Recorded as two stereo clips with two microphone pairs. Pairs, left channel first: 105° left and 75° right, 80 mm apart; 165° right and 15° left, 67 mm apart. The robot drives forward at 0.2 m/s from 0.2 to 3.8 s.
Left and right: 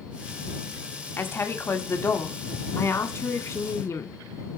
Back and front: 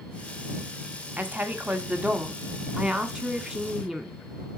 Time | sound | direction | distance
1.2 | a woman speaking | 60° left | 1.5 m